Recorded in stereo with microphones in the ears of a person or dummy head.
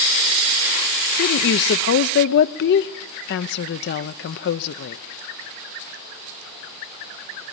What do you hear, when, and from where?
1.2 s a woman speaking: 60° left (ahead or behind), 0.6 m